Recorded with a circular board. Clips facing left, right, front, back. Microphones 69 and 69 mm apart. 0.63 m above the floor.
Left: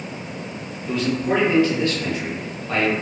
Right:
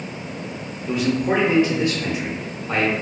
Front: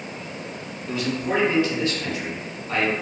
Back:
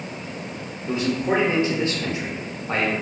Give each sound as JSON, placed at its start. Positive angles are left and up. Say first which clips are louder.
{"t": 0.9, "sound": "a man speaking", "louder": "right 1 dB, back 3 dB", "azimuth_deg": -150, "distance_m": 0.6}